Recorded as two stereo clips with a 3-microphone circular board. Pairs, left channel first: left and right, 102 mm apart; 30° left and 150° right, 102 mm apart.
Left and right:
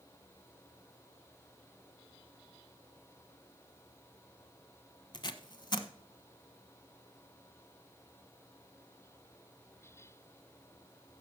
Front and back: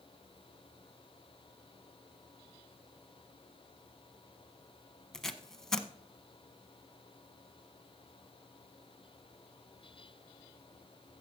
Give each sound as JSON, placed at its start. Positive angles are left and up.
{"t": 5.1, "sound": "tape being pulled", "azimuth_deg": 115, "distance_m": 0.8}